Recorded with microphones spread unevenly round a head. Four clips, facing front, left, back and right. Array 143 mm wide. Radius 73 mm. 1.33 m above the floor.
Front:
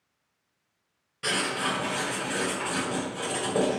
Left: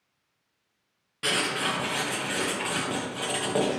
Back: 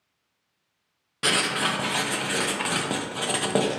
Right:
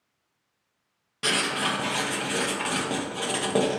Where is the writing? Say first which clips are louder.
Right 1 dB, back 3 dB; 170° right, 0.6 m.